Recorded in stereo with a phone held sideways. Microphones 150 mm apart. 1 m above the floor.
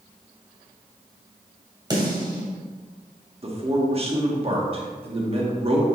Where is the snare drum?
30° right (ahead or behind), 2 m.